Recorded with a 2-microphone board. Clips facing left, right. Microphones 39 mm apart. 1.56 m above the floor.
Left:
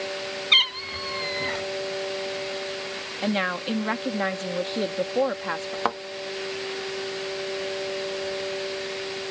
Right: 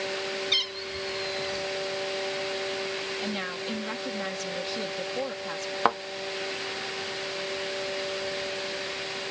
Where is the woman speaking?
40° left (ahead or behind).